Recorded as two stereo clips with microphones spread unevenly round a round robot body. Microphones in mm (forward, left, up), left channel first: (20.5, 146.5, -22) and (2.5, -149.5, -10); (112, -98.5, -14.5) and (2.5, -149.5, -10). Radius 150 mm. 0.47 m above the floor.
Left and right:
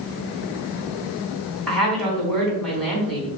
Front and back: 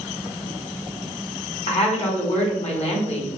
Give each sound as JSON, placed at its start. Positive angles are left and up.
{"t": 1.7, "sound": "a woman speaking", "azimuth_deg": 0, "distance_m": 3.5}